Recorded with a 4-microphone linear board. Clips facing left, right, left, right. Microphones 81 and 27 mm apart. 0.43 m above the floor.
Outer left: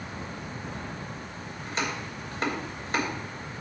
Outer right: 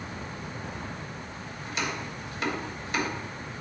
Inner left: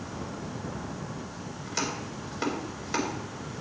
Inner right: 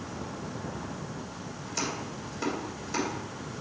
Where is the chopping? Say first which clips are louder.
Outer left 1 dB, inner left 1 dB; 40° left (ahead or behind), 2.5 m.